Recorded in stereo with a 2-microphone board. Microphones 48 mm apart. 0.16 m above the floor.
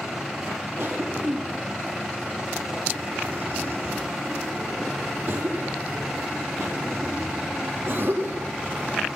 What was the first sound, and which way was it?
A cough, 55° right (ahead or behind).